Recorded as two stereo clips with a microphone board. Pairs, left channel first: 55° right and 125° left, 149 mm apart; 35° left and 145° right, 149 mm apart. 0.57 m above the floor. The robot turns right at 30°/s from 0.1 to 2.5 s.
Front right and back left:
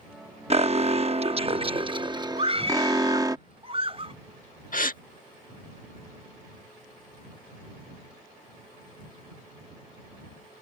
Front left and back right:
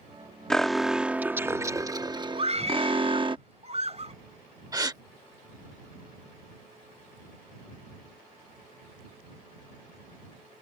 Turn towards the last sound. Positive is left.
turn(degrees=-80)